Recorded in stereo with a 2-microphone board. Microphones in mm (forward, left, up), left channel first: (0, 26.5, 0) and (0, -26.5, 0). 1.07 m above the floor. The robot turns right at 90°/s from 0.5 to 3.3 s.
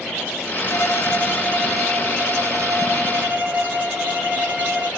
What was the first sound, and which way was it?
A violin, 90° left.